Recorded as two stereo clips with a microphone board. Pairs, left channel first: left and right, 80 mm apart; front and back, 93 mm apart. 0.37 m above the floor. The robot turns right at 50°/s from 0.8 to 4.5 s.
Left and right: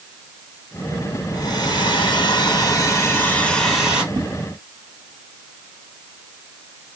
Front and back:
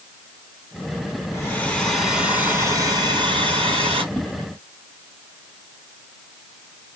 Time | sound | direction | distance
1.3 | a hair dryer | 60° left | 3.5 m
4.1 | a whoosh | 85° right | 1.1 m